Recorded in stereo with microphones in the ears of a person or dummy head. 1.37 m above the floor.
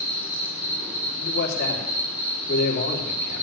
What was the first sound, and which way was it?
An insect, 10° right (ahead or behind).